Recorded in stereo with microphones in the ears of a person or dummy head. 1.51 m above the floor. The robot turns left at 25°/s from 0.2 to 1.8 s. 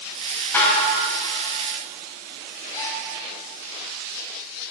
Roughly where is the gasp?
Centre.